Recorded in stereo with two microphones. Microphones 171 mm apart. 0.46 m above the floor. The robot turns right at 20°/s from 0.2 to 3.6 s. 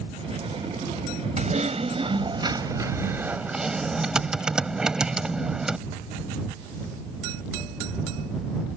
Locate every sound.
1.4 s typing on a keyboard: 50° right; by 5.8 s 5° right